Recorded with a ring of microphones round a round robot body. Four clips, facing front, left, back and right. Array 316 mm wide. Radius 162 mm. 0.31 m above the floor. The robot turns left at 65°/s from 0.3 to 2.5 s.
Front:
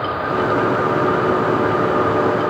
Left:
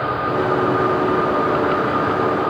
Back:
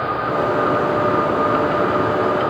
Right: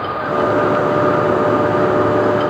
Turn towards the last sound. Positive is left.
No sound to turn to.